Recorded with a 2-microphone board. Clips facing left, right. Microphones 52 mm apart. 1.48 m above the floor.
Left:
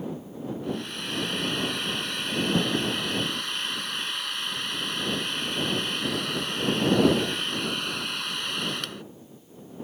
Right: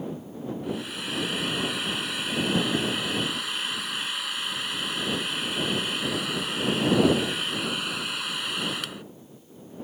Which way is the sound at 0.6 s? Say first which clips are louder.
Even; 5° right (ahead or behind).